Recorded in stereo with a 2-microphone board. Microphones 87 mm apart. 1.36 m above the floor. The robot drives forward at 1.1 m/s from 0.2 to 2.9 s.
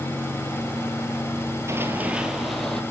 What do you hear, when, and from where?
1.7 s running footsteps: 35° right (ahead or behind), 1.9 m; by 2.8 s 10° left (ahead or behind), 2.5 m